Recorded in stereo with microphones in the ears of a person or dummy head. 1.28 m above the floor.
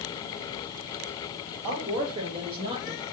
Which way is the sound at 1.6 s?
30° right (ahead or behind).